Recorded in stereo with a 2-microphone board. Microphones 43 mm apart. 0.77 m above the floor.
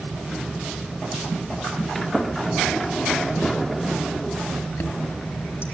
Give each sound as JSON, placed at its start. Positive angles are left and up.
{"t": 1.9, "sound": "a sliding door", "side_deg": 5, "distance_m": 1.8}
{"t": 4.7, "sound": "a chime", "side_deg": 65, "distance_m": 4.0}